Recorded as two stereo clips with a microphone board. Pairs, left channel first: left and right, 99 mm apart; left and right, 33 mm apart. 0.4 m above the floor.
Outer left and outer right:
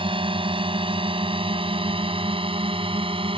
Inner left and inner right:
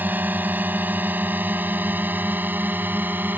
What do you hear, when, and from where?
0.0 s a drone: 60° right (ahead or behind); by 3.4 s 65° right (ahead or behind)